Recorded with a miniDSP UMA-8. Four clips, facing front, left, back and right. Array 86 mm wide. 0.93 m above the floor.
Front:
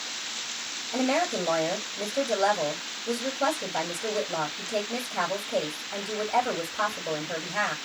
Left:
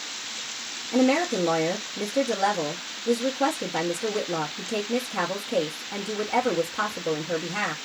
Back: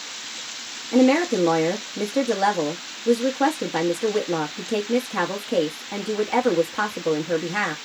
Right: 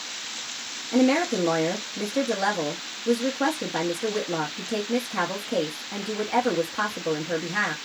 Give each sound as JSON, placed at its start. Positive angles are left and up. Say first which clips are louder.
{"t": 0.9, "sound": "a woman speaking", "louder": "right 1 dB, back 9 dB", "azimuth_deg": -165, "distance_m": 1.2}